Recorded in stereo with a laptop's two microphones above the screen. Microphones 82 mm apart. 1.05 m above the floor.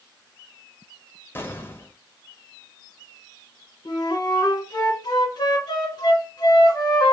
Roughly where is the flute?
Left.